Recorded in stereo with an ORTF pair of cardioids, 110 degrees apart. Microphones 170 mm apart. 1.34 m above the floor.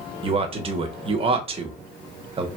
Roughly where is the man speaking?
Ahead right.